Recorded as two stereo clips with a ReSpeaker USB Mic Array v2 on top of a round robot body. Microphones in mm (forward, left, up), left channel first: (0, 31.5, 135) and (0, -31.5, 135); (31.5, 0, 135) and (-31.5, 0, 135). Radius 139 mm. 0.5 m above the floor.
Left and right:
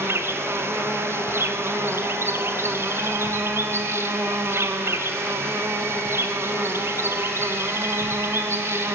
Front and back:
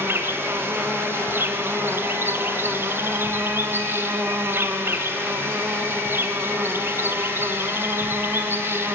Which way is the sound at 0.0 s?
130° right.